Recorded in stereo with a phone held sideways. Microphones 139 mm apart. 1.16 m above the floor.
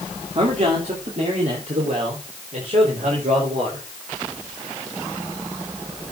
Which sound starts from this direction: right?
A man speaking, at 0.3 s.